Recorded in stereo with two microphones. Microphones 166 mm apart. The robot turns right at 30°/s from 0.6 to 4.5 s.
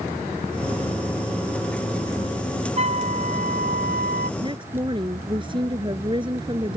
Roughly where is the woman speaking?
Right.